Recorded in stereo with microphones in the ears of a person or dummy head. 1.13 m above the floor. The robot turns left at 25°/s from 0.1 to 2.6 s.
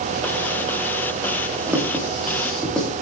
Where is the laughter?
No laughter in this recording.